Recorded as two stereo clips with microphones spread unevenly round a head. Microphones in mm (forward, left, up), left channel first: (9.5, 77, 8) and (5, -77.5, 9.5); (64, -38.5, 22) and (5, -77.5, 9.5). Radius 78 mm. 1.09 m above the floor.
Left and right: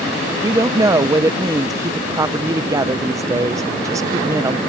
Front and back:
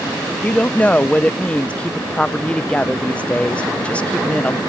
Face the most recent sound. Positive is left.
turn(degrees=-40)